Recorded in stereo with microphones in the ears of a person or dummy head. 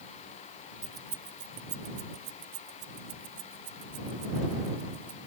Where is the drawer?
I don't hear a drawer.